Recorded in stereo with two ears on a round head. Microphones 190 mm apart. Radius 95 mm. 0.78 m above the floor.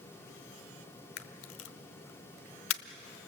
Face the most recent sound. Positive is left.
turn(degrees=60)  # may be behind; listen again after turning